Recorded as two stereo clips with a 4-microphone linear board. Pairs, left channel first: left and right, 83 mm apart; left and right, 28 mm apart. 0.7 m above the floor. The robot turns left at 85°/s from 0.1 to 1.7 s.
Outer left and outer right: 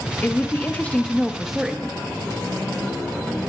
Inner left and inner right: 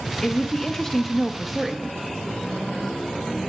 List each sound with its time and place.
0.2 s a woman speaking: 20° left (ahead or behind), 0.7 m; by 2.0 s 10° right (ahead or behind), 0.7 m